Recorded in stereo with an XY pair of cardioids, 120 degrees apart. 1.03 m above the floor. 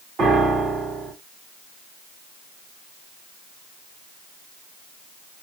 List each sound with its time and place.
0.2 s a piano: 45° right, 2 m